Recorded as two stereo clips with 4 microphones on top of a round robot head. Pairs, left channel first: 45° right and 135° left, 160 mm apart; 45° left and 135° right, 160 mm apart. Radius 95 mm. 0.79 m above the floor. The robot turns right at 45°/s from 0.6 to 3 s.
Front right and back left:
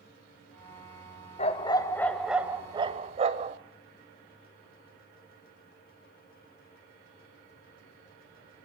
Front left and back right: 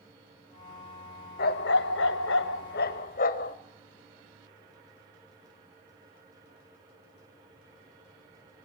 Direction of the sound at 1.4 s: 10° left.